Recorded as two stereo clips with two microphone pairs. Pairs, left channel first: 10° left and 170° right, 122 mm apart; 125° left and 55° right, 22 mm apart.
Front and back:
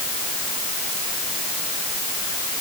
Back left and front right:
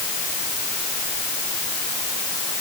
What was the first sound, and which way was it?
Only background noise.